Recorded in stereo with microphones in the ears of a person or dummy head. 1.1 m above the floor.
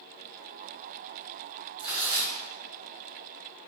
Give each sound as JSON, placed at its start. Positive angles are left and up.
{"t": 1.8, "sound": "tearing paper", "side_deg": -5, "distance_m": 0.9}